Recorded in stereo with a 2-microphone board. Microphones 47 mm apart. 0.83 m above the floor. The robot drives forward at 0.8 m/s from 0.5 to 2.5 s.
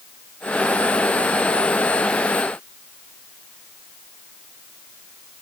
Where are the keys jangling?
I don't hear keys jangling.